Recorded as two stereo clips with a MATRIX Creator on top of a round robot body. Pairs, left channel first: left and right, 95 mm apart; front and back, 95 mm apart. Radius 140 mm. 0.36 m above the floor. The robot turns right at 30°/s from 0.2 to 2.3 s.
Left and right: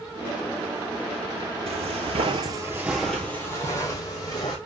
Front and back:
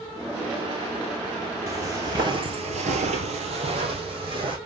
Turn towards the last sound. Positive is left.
turn(degrees=145)